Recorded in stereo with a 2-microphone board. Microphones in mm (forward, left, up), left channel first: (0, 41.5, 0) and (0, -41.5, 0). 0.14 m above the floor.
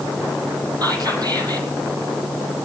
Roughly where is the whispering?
Right.